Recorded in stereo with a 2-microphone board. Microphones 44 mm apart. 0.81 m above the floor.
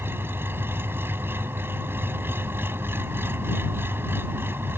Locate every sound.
0.0 s an engine running: 60° right (ahead or behind)